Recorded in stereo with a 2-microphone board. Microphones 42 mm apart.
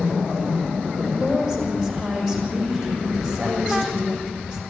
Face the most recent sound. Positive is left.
turn(degrees=0)  # may be behind; listen again after turning